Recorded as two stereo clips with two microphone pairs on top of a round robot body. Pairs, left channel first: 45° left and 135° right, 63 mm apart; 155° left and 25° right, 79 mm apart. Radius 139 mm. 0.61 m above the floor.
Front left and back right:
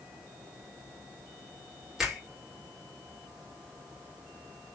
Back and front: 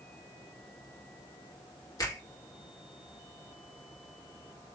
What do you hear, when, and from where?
2.0 s a finger snap: 140° left, 1.1 m